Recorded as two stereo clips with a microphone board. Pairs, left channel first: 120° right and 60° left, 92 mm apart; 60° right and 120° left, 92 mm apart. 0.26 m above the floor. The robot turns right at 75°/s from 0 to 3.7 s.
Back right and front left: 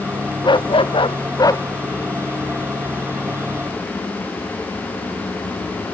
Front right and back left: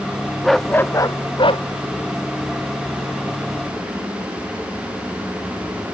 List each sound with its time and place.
0.4 s a dog barking: 150° right; by 1.6 s 60° right